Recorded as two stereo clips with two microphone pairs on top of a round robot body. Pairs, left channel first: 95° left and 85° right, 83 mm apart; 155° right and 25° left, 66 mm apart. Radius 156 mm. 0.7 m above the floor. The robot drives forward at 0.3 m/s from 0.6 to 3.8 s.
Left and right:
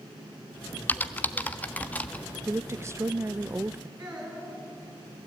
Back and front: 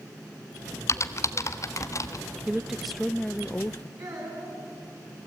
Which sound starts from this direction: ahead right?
A woman speaking, at 2.5 s.